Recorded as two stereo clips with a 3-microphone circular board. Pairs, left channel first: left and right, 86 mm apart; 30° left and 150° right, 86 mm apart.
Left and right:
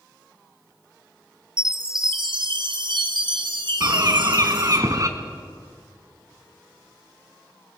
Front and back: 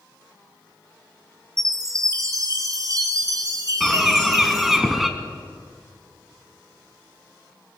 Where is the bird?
65° right, 1.6 m.